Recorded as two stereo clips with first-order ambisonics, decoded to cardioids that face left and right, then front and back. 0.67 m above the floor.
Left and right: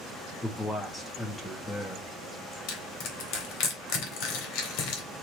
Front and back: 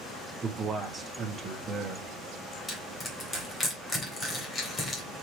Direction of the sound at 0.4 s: 155° left.